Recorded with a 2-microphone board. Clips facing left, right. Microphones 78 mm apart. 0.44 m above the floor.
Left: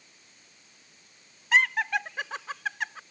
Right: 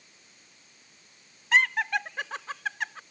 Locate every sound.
1.5 s laughter: centre (ahead or behind)